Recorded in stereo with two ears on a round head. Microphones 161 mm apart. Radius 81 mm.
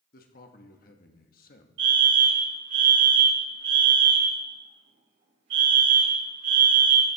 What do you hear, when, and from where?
0.1 s a man speaking: 50° left (ahead or behind), 1.2 m
1.8 s a fire alarm: 70° right (ahead or behind), 5.5 m